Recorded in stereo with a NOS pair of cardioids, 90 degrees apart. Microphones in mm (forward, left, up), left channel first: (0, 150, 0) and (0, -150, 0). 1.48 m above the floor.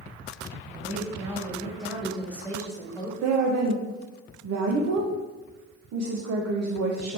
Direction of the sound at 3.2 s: 60° right.